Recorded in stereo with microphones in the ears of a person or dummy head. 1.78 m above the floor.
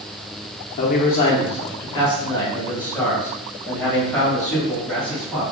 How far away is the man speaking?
About 0.7 m.